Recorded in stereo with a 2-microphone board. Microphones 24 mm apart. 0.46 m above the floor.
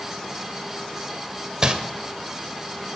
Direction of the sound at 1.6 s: 30° right (ahead or behind).